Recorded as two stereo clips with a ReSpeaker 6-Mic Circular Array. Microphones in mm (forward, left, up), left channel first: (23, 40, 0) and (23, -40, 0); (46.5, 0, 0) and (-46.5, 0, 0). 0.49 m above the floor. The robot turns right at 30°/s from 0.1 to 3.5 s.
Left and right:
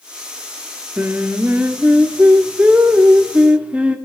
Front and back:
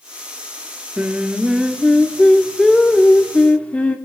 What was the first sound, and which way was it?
Singing, 125° right.